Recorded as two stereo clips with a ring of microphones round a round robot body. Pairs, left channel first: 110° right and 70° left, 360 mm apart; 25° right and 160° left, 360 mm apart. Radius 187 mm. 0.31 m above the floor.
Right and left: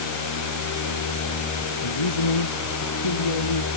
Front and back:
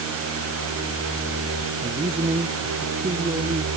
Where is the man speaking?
125° right.